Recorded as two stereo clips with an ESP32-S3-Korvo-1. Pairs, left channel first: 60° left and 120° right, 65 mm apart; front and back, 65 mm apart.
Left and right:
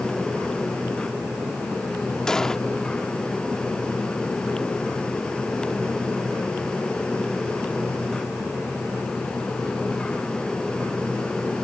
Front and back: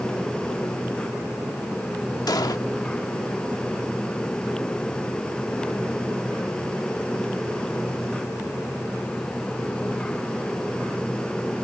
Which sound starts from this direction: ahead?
An explosion, at 2.3 s.